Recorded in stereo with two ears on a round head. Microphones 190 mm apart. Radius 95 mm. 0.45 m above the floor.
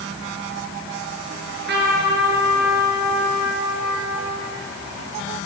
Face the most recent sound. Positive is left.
turn(degrees=-55)  # may be behind; listen again after turning